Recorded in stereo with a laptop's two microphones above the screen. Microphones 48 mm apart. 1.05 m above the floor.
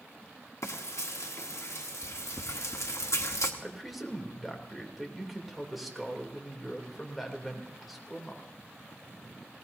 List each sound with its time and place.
0.6 s frying: 75° left (ahead or behind), 1.2 m
3.6 s a man speaking: centre (ahead or behind), 3 m